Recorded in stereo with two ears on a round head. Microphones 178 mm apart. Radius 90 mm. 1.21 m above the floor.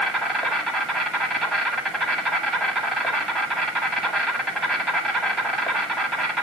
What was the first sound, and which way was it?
An insect, centre (ahead or behind).